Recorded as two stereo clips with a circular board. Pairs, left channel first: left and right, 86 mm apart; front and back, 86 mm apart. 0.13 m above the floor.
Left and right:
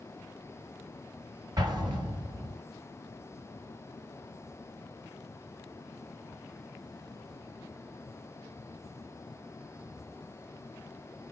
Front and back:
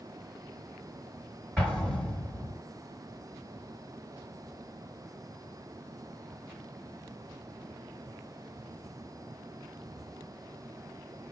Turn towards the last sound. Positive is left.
turn(degrees=-80)